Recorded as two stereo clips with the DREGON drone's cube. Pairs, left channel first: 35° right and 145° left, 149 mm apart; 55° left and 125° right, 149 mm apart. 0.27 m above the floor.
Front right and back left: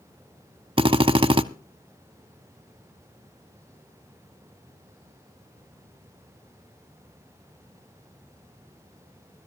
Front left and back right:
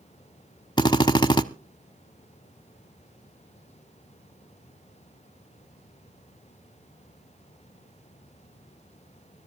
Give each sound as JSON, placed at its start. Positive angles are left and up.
{"t": 0.8, "sound": "a drill", "azimuth_deg": 105, "distance_m": 0.6}